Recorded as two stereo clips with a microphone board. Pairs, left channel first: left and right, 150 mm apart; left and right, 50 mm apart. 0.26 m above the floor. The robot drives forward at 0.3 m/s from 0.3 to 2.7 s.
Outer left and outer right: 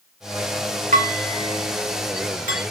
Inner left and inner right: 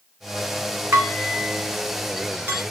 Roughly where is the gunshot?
I don't hear a gunshot.